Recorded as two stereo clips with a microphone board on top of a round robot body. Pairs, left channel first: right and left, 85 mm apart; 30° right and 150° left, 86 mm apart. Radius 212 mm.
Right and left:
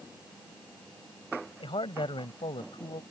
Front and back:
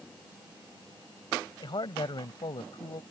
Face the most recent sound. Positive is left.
turn(degrees=-65)